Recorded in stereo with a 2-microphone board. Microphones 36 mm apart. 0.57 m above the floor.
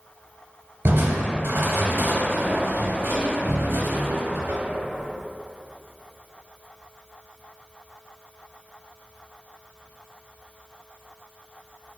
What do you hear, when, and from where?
0.8 s crushing: 70° right (ahead or behind), 0.7 m